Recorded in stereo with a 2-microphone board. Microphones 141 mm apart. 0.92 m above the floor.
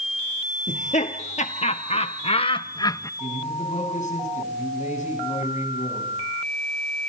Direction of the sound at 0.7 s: 60° left (ahead or behind).